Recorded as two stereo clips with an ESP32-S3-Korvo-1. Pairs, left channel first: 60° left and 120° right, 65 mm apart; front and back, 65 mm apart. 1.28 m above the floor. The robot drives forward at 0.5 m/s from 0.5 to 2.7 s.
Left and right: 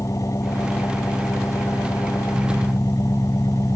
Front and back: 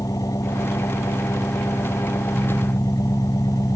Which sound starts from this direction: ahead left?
An engine running, at 0.0 s.